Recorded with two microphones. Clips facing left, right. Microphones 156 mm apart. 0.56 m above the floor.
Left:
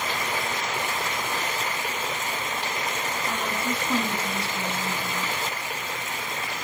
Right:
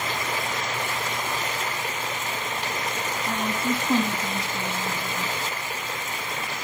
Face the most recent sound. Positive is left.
turn(degrees=-20)  # may be behind; listen again after turning